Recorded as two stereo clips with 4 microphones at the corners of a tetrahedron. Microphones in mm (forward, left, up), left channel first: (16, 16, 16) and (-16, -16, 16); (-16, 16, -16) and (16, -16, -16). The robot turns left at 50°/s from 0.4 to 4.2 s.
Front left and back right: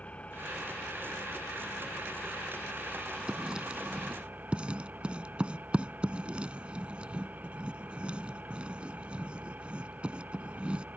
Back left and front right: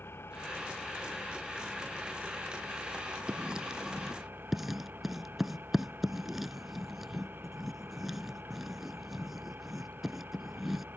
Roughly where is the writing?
Right.